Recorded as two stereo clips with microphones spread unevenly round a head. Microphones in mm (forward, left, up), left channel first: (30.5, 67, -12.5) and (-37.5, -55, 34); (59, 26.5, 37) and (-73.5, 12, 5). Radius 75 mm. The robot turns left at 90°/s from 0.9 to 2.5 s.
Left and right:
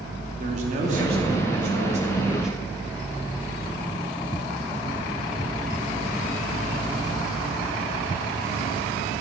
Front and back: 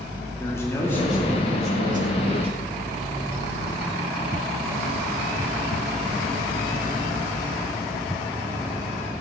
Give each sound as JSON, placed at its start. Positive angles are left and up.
{"t": 0.4, "sound": "a man speaking", "azimuth_deg": -70, "distance_m": 2.5}